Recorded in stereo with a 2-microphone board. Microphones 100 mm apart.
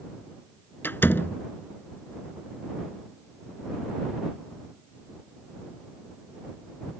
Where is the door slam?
20° left (ahead or behind).